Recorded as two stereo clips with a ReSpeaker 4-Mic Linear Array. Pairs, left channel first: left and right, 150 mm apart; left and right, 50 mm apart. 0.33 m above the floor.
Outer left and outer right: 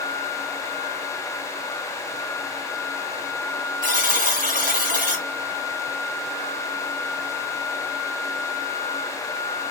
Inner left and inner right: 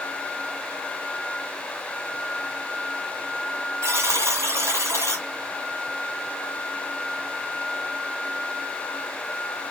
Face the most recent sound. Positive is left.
turn(degrees=-70)  # may be behind; listen again after turning